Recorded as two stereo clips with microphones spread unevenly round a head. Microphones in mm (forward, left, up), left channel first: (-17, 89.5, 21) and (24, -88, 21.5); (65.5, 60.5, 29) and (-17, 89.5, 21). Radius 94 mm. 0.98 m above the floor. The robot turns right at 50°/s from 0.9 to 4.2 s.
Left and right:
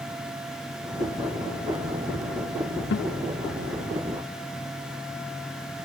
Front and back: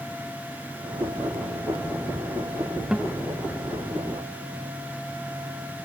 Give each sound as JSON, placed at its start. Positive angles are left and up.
{"t": 2.9, "sound": "a guitar", "azimuth_deg": 80, "distance_m": 0.6}